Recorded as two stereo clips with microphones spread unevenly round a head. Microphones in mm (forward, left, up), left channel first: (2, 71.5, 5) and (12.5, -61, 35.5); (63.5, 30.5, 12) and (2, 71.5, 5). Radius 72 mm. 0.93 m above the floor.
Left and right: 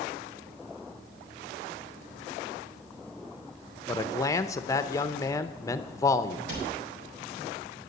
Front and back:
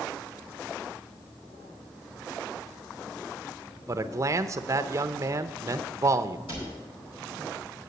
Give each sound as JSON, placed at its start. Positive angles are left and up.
{"t": 3.9, "sound": "a man speaking", "azimuth_deg": 135, "distance_m": 0.6}
{"t": 6.5, "sound": "a cupboard door", "azimuth_deg": -85, "distance_m": 4.5}